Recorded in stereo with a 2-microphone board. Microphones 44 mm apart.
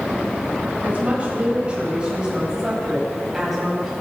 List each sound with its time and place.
0.8 s a woman speaking: 30° right (ahead or behind), 8.5 m; by 3.9 s 5° right (ahead or behind), 11 m